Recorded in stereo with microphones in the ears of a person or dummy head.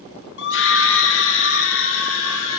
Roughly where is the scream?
Left.